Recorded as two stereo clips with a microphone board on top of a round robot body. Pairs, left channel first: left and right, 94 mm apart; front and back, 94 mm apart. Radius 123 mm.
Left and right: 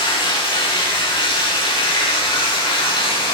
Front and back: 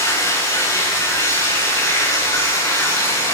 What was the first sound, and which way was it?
Running water, 55° left.